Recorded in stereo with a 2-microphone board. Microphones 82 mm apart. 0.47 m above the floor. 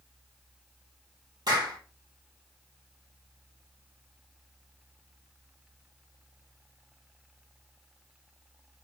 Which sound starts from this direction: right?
A clap, at 1.5 s.